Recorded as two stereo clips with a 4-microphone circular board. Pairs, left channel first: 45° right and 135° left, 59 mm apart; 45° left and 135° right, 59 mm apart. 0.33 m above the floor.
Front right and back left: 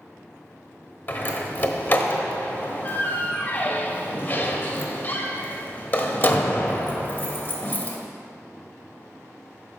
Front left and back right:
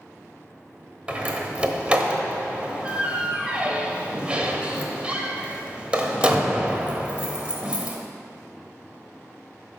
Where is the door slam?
75° right, 1.1 m.